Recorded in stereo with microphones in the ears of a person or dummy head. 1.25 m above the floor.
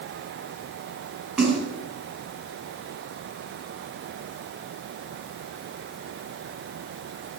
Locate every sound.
1.4 s a splash: 5° right (ahead or behind), 7 m